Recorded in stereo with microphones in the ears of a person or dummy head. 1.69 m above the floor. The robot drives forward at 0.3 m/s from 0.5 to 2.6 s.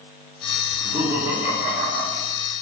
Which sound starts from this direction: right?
Laughter, at 0.7 s.